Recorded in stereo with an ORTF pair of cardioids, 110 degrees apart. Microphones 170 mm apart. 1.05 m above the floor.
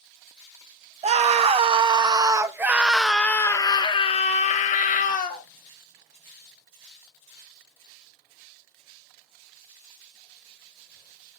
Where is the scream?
45° right, 1.5 m; by 5.4 s 65° left, 1.4 m.